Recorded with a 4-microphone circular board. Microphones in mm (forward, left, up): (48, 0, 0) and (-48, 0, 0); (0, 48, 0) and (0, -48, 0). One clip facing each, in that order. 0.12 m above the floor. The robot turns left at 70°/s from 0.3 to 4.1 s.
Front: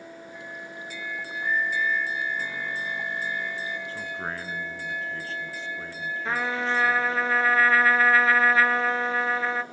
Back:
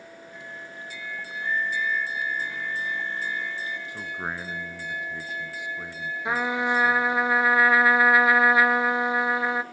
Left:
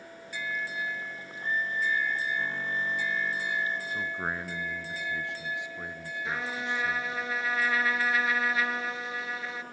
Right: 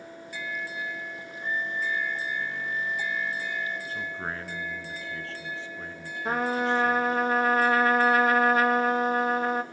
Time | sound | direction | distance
1.4 | a flute | 55° right | 1.5 m
3.9 | a man speaking | 145° left | 1.0 m
6.2 | a trumpet | 110° right | 0.7 m